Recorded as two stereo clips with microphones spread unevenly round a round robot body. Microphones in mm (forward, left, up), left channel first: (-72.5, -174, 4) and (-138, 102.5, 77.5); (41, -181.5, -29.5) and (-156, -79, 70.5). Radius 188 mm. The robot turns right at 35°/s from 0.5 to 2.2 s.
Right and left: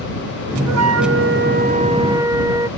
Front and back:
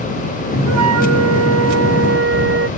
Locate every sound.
0.7 s a flute: 130° left; by 2.7 s straight behind